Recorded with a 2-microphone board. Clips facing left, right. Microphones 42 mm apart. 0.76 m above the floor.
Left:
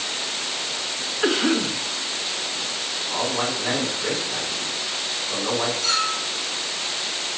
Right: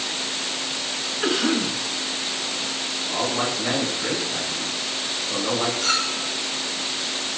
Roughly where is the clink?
Right.